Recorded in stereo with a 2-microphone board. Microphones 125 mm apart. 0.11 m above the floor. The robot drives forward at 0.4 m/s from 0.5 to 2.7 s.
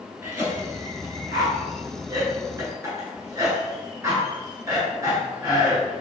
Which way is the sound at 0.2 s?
25° right (ahead or behind).